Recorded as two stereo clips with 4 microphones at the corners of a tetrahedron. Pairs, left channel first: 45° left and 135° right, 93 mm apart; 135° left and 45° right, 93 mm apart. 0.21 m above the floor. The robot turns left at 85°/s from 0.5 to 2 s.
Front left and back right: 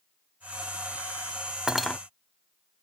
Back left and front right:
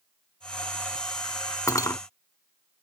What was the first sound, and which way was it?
Cutlery clinking, 145° left.